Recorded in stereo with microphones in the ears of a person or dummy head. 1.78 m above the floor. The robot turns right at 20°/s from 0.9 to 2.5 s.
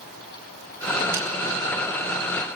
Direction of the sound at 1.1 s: 10° right (ahead or behind).